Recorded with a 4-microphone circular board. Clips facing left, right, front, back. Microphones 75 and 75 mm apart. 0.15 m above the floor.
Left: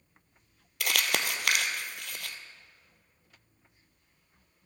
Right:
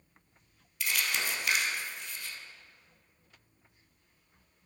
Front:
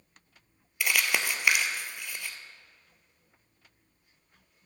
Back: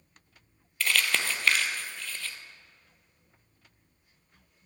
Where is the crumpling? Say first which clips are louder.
Left 3 dB, even; 75° left, 0.9 m.